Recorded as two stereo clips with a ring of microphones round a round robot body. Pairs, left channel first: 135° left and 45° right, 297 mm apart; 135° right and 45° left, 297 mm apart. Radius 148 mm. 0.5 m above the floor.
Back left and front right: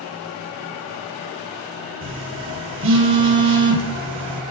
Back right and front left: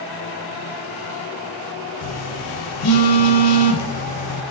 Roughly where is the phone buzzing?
Right.